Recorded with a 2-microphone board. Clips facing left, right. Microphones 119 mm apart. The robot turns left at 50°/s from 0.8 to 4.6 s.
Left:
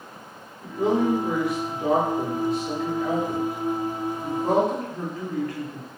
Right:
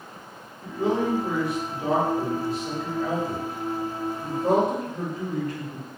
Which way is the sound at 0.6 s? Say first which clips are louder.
Left 2 dB; 25° left (ahead or behind).